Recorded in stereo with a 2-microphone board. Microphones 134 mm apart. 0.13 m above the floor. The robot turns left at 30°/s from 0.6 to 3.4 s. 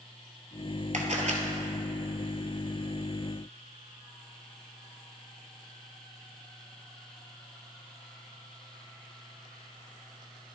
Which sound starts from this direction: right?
A camera shutter, at 0.9 s.